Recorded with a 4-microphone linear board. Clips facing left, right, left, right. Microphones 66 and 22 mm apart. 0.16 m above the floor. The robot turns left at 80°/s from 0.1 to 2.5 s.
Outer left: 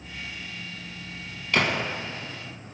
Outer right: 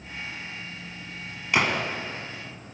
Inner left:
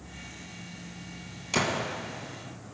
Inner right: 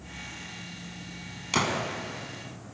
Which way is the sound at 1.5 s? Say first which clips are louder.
Even, inner right 1 dB; 15° right (ahead or behind).